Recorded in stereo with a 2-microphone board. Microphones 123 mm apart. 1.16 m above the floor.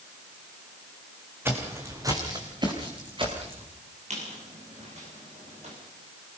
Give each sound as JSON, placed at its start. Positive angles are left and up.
{"t": 1.4, "sound": "footsteps", "side_deg": -15, "distance_m": 3.5}
{"t": 4.1, "sound": "a squeak", "side_deg": -60, "distance_m": 6.0}